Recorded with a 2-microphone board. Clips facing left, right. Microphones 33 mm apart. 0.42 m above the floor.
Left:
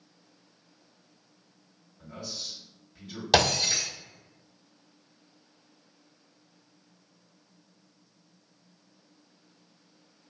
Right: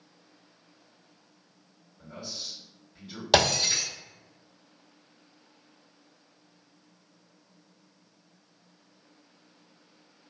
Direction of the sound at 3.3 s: 5° right (ahead or behind).